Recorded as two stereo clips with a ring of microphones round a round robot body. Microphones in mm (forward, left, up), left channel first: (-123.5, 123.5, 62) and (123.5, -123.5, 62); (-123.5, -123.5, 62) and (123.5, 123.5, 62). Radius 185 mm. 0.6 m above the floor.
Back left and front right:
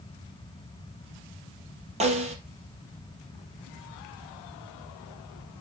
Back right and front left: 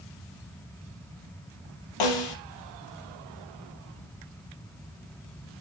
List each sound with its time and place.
2.0 s a snare drum: 115° right, 4 m